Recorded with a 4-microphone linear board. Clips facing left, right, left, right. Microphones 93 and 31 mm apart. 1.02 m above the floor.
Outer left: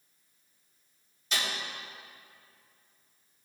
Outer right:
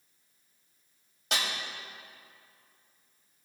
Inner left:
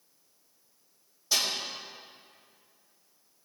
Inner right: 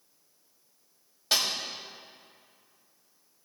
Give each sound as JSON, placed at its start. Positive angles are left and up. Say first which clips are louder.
{"t": 1.3, "sound": "a snare drum", "louder": "outer right 1 dB, inner right 1 dB", "side_deg": -65, "distance_m": 3.0}